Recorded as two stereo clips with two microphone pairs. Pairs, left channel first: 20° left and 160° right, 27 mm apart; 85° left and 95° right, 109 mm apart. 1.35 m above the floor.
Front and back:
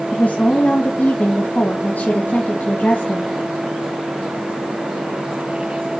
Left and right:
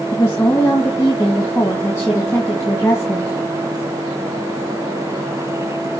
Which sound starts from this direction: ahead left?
A woman speaking, at 0.1 s.